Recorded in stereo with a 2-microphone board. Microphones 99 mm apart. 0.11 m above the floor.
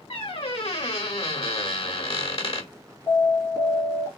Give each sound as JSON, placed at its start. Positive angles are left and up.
{"t": 0.1, "sound": "a squeak", "side_deg": 70, "distance_m": 1.2}
{"t": 3.1, "sound": "an alarm", "side_deg": 35, "distance_m": 2.5}